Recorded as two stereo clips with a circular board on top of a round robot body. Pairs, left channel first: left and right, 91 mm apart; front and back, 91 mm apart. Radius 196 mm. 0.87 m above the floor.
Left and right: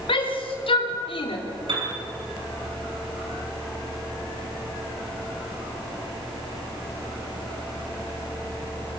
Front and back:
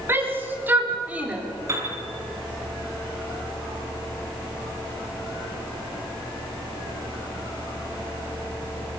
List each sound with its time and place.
0.1 s a shout: 115° left, 4.5 m; by 1.4 s 105° left, 3.5 m
1.7 s a piano: 120° right, 6 m